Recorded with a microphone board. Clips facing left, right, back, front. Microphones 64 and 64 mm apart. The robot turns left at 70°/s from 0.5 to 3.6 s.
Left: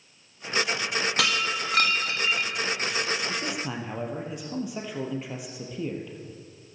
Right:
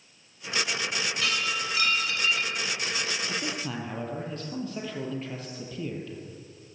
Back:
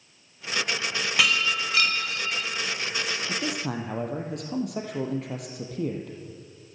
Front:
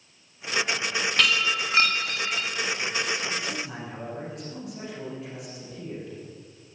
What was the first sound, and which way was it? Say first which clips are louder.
Breaking glass: left 2 dB, back 1 dB; 100° left.